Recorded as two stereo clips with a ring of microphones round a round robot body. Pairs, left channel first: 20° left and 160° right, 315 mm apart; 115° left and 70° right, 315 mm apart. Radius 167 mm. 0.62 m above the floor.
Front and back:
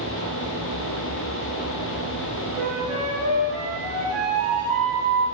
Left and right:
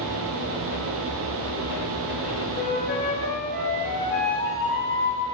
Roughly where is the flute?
Behind left.